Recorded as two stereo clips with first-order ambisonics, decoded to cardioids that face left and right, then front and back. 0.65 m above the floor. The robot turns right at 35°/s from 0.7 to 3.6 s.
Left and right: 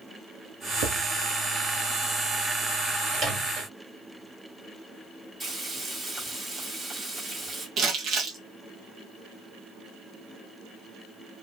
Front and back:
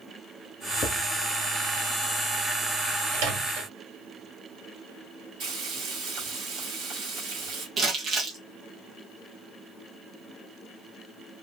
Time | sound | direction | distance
0.8 | writing | 70° right | 0.9 m
3.1 | a microwave | 175° right | 1.6 m
5.4 | frying | 175° right | 1.9 m
7.8 | crumpling | 130° right | 1.2 m